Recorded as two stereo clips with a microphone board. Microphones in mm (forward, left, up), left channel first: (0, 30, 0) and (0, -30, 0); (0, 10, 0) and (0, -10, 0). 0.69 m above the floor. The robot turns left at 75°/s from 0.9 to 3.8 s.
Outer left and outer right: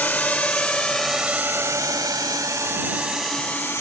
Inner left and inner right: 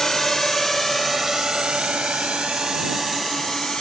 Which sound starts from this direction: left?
A drone, at 0.0 s.